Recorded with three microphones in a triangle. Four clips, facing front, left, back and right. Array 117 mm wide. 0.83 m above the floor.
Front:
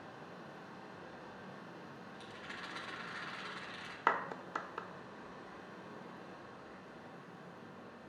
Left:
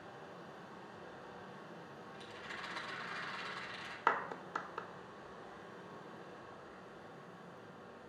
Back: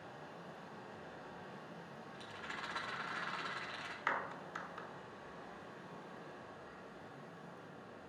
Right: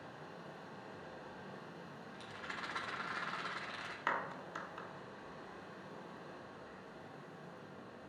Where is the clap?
30° left, 1.2 m.